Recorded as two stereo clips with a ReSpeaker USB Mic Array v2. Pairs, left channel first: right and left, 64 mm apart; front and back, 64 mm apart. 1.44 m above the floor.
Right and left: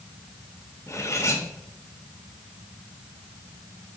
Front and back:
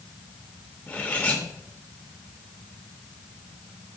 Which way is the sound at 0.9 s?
65° right.